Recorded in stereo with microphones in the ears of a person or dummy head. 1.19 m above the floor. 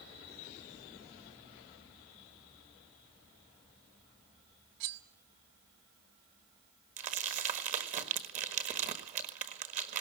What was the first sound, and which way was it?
Cutlery clinking, 65° right (ahead or behind).